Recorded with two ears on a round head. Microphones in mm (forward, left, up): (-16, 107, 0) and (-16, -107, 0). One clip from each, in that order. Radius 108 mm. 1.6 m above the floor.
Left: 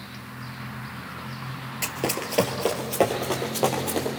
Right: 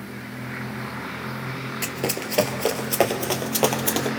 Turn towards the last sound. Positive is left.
turn(degrees=-45)  # may be behind; listen again after turning